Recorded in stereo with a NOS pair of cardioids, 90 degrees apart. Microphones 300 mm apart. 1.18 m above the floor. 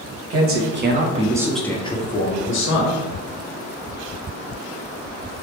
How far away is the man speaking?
About 1.1 m.